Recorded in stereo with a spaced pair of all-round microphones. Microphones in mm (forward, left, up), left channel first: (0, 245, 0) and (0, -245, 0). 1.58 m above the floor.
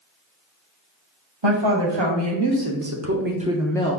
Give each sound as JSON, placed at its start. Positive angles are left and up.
{"t": 1.4, "sound": "a woman speaking", "side_deg": -65, "distance_m": 1.2}